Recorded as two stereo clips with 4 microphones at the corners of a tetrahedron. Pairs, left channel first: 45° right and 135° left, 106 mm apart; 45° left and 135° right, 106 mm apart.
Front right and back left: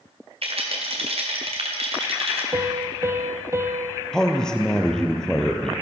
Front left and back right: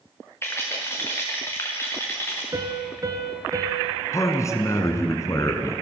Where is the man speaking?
30° left, 1.4 m.